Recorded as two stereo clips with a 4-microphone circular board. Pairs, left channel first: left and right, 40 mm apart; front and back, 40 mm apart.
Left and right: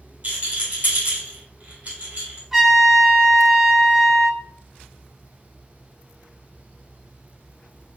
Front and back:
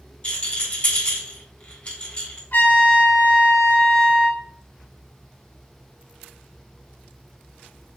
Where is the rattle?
50° right, 2.0 m.